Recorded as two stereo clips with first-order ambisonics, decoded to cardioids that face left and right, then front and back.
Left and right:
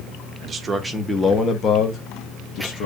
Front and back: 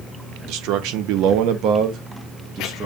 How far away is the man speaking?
About 0.9 m.